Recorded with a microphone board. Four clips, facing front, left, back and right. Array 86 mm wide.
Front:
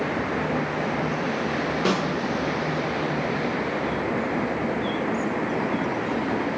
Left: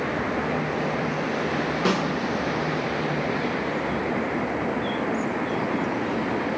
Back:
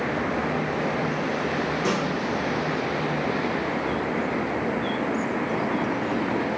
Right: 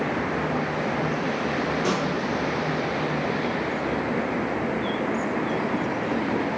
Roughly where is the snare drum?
Ahead left.